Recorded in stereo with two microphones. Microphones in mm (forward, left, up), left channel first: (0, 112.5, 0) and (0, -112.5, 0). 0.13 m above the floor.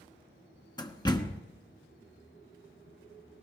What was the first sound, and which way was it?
A door slam, 20° left (ahead or behind).